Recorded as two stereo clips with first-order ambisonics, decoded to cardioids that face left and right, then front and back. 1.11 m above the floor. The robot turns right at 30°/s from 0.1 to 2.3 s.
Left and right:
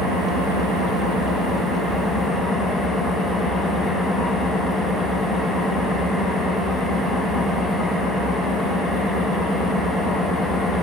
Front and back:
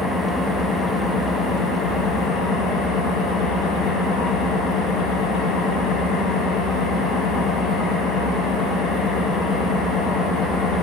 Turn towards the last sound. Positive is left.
turn(degrees=-15)